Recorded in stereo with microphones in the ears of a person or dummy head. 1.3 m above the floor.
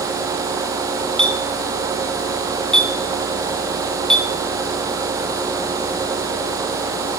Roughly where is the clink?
Centre.